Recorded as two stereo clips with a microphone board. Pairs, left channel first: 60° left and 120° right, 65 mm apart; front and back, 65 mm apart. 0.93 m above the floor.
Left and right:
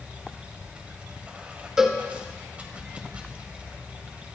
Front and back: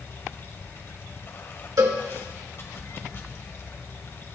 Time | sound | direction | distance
0.0 | running water | 50° right | 1.8 m
1.8 | a cowbell | 160° left | 1.7 m